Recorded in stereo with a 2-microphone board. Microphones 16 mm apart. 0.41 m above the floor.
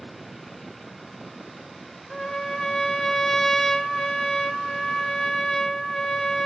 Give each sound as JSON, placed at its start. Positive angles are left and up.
{"t": 2.1, "sound": "a trumpet", "side_deg": 20, "distance_m": 1.2}